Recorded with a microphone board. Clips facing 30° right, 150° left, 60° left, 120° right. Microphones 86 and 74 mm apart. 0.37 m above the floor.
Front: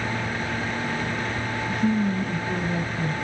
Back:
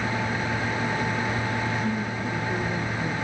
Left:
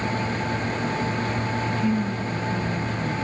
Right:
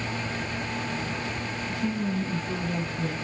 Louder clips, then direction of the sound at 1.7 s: Front 4 dB, left 2 dB; 40° right.